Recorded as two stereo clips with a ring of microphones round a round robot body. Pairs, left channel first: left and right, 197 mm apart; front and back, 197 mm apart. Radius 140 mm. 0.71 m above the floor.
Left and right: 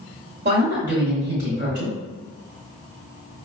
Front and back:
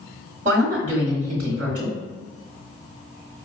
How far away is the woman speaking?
About 1.5 m.